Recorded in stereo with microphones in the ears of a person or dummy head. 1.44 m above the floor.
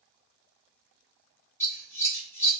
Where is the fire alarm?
I don't hear a fire alarm.